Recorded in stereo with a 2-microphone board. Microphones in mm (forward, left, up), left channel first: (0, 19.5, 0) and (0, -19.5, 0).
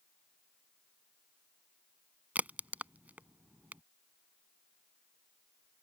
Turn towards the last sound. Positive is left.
turn(degrees=-40)  # may be behind; listen again after turning